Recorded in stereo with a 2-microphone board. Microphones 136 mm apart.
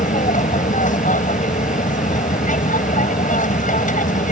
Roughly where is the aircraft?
Left.